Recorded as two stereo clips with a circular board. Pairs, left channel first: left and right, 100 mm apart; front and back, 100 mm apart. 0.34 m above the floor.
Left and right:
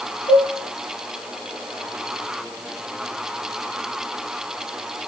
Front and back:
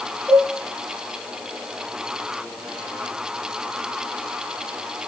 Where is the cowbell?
80° left, 4.5 m.